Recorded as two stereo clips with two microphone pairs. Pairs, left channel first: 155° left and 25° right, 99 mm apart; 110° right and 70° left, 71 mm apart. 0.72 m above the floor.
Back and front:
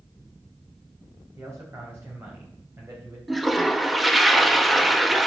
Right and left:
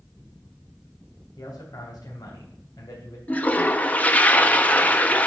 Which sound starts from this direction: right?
A man speaking, at 1.4 s.